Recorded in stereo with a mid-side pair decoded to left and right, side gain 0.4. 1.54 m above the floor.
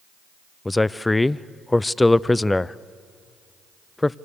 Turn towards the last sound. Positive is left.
turn(degrees=15)